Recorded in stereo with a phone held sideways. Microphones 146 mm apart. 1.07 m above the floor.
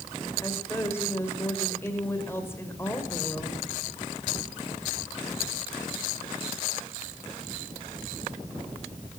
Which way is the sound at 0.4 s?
15° left (ahead or behind).